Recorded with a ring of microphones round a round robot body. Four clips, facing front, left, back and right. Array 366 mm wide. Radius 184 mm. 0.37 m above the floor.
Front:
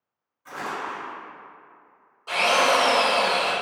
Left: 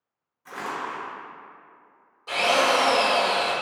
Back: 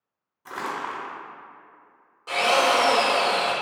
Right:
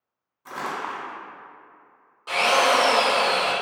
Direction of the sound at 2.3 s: 125° right.